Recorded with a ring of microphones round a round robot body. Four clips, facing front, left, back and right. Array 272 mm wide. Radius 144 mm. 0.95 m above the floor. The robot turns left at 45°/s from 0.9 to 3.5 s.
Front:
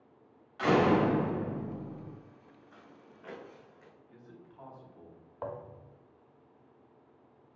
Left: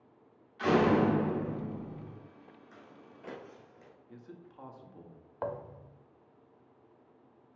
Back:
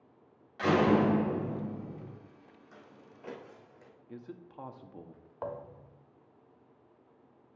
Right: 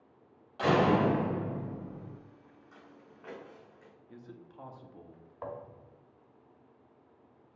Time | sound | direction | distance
0.6 | a door slam | 120° right | 3.5 m
2.7 | footsteps | 160° left | 3 m
4.1 | a man speaking | 175° right | 1.5 m
5.4 | a thud | 100° left | 0.7 m